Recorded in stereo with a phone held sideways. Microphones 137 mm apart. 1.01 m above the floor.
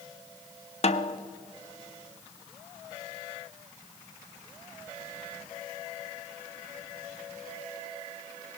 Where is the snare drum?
45° left (ahead or behind), 0.5 m.